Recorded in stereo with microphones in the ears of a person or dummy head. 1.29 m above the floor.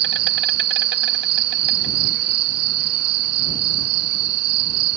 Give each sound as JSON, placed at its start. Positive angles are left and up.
{"t": 0.0, "sound": "an insect", "side_deg": -50}